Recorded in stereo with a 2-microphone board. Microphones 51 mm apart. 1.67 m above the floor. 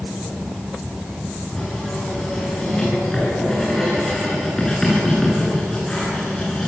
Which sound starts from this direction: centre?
Writing, at 1.5 s.